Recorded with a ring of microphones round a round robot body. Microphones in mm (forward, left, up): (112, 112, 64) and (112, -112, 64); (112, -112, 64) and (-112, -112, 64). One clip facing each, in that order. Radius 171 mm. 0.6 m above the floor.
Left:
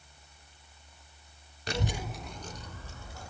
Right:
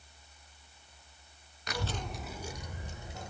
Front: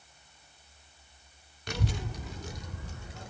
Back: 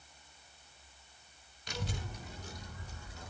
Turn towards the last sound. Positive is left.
turn(degrees=-20)